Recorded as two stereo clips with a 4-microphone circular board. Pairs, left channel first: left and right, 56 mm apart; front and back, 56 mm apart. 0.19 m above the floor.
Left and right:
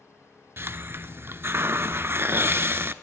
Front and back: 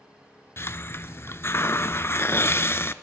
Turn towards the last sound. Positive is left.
turn(degrees=-45)